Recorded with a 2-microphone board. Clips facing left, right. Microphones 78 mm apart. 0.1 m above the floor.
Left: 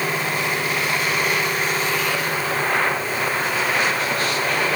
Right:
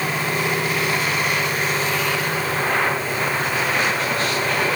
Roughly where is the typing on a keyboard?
No typing on a keyboard in this recording.